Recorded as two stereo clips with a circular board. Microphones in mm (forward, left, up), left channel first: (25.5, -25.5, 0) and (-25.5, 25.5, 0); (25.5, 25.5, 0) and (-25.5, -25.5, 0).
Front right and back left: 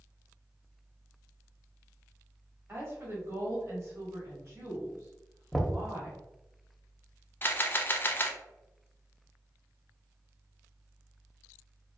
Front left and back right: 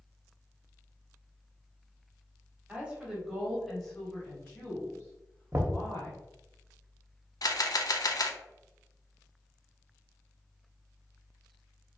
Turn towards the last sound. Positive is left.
turn(degrees=15)